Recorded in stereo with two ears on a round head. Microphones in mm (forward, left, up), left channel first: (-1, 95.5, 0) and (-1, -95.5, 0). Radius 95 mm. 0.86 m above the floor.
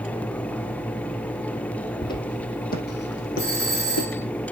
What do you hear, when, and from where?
2.0 s footsteps: 20° left (ahead or behind), 2 m; by 4.1 s 70° left (ahead or behind), 4 m
3.4 s a doorbell: 15° right (ahead or behind), 7 m